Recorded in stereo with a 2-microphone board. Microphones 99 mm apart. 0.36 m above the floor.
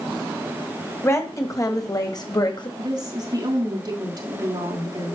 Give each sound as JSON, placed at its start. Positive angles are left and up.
{"t": 1.0, "sound": "a woman speaking", "side_deg": 25, "distance_m": 1.9}
{"t": 2.8, "sound": "a woman speaking", "side_deg": -45, "distance_m": 3.5}